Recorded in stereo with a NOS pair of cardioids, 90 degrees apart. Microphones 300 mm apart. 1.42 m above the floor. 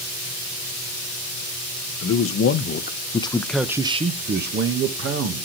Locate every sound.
2.0 s a man speaking: 55° left, 1.2 m; by 5.5 s 55° right, 1.4 m